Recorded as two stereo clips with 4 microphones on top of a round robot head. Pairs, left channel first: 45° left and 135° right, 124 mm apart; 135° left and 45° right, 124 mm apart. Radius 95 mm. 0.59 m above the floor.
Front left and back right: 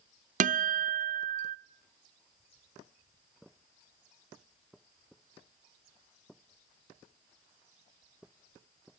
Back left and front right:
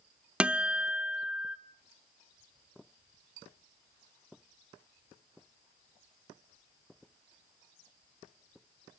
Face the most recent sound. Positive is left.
turn(degrees=-125)